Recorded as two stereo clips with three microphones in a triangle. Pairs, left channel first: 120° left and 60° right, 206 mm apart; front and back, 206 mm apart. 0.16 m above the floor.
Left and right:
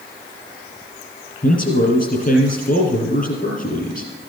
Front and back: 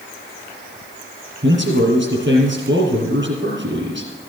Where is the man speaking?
160° left, 4.5 m.